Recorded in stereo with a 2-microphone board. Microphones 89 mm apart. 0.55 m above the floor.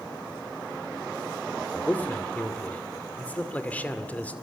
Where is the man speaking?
15° left (ahead or behind), 1.9 m.